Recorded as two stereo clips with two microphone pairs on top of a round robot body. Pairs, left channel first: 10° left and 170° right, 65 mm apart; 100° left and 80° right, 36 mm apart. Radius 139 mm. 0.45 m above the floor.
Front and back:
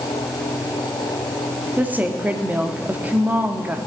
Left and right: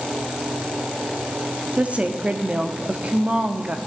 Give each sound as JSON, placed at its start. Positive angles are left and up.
{"t": 1.8, "sound": "a woman speaking", "azimuth_deg": -110, "distance_m": 1.3}